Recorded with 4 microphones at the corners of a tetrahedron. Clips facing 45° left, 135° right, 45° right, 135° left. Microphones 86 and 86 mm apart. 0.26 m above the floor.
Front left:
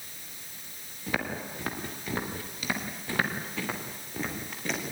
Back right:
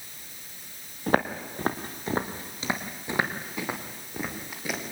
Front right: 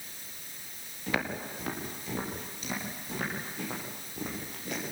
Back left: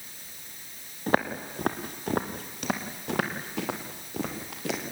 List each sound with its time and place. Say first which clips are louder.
1.1 s footsteps: back right 7 dB, back left 7 dB; straight behind, 3 m; by 4.9 s 140° left, 5.5 m